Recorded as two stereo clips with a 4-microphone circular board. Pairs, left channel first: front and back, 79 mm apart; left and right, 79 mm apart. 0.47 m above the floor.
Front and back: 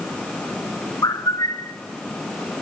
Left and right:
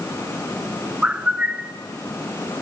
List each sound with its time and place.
1.0 s a bird: 15° right, 0.7 m